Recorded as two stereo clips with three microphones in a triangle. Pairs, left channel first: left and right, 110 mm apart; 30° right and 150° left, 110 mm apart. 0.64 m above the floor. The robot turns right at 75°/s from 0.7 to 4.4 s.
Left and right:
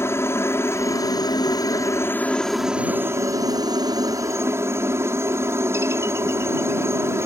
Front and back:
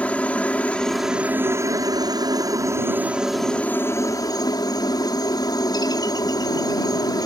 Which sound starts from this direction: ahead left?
A helicopter, at 0.0 s.